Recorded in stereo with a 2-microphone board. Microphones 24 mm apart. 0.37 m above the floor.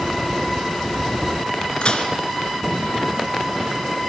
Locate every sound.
1.8 s dishes clattering: 45° left (ahead or behind), 3 m